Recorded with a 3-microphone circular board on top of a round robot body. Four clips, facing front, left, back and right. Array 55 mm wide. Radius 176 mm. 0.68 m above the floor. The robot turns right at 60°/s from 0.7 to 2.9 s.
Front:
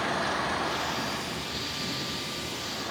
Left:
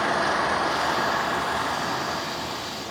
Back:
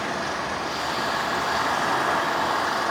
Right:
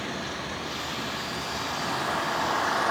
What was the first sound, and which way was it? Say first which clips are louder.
An engine running: left 11 dB, back 1 dB; 95° left.